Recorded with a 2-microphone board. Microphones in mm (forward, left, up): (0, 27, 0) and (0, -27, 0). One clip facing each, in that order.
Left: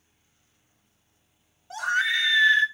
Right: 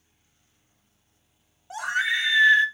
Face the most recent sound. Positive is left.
turn(degrees=-20)  # may be behind; listen again after turning